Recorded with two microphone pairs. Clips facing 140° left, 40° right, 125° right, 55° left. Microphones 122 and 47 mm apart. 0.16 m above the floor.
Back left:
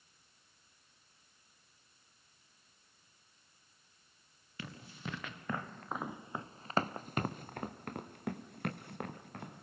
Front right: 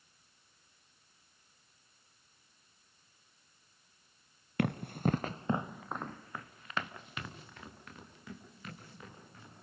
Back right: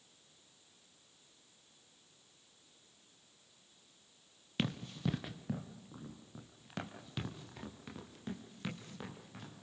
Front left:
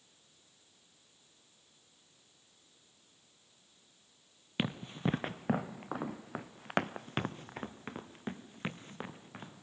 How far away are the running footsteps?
About 1.1 m.